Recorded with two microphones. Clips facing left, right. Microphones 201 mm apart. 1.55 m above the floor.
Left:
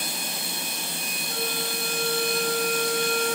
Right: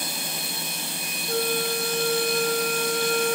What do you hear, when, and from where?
1.3 s a flute: 55° right (ahead or behind), 1.8 m